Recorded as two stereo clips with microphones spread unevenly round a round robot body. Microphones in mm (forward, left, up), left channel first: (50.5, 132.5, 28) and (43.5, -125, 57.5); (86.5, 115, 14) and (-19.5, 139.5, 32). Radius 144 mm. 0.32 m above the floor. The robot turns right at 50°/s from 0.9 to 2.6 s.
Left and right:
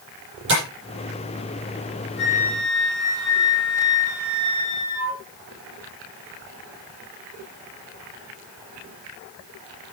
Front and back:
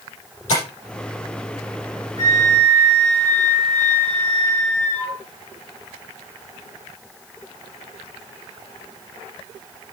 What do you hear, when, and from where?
0.5 s tapping: 45° right, 7.5 m
2.2 s a flute: 40° left, 6 m; by 5.2 s 65° left, 6 m